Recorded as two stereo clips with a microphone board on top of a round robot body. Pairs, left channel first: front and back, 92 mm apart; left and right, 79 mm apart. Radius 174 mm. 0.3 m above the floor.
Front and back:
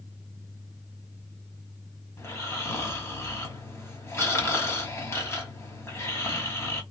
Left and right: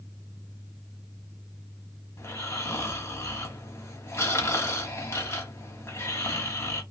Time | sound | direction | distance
2.2 | snoring | 45° left | 1.8 m